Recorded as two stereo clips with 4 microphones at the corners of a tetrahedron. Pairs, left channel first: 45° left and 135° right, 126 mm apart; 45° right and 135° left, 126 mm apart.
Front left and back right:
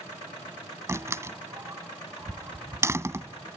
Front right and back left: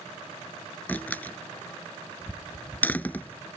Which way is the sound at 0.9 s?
100° right.